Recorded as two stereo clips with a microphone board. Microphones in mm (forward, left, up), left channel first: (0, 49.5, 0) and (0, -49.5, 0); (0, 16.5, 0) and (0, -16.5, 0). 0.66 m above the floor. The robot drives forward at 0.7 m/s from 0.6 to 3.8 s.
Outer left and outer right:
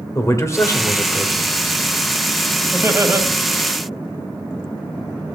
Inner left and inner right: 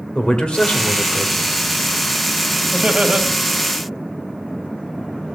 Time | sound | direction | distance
0.1 | a man speaking | 30° left (ahead or behind) | 1.9 m
2.7 | laughter | 25° right (ahead or behind) | 1.3 m